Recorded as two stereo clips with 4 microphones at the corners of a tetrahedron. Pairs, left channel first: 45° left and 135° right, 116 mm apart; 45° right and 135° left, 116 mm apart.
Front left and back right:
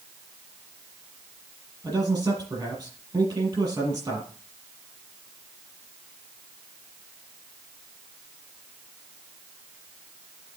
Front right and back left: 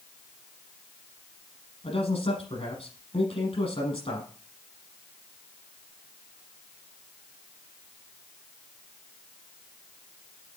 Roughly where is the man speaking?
Right.